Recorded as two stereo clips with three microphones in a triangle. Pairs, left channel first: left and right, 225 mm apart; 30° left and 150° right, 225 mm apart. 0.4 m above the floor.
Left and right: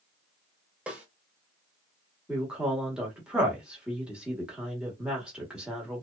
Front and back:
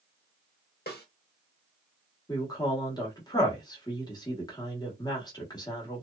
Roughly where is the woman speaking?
Ahead.